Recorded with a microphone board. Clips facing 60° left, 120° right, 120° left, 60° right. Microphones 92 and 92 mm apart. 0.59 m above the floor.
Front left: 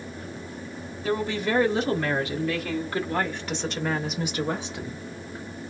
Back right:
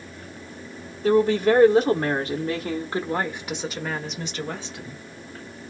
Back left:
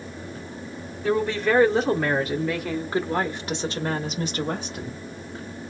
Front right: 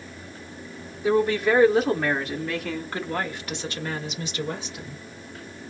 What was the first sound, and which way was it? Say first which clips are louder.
A woman speaking: back right 8 dB, front right 2 dB; 135° right.